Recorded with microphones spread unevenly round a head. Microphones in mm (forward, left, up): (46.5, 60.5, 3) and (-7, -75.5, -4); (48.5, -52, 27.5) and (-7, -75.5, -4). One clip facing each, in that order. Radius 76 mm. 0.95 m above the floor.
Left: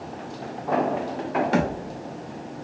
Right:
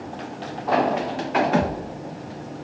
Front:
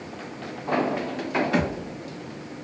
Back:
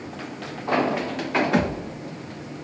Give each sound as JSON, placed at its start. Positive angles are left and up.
{"t": 1.5, "sound": "a thud", "azimuth_deg": 115, "distance_m": 0.9}